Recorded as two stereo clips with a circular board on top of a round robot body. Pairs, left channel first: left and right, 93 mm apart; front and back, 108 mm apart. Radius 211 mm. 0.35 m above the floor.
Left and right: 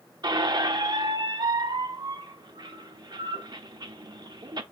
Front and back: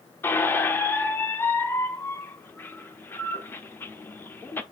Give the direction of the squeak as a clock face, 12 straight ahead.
2 o'clock.